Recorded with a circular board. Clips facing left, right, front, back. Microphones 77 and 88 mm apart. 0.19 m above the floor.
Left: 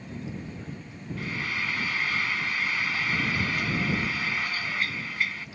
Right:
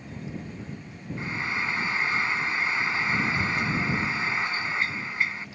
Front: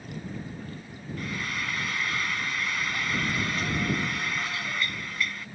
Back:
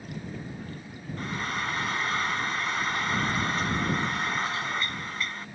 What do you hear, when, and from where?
1.2 s frying: 140° right